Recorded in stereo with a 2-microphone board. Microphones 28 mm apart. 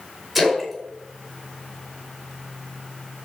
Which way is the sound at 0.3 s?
10° right (ahead or behind).